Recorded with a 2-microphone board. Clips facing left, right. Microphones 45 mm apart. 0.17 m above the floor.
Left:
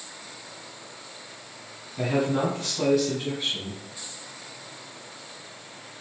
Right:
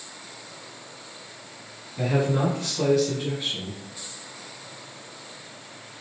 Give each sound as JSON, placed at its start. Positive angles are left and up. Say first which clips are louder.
{"t": 2.0, "sound": "a man speaking", "louder": "right 1 dB", "side_deg": 5, "distance_m": 1.6}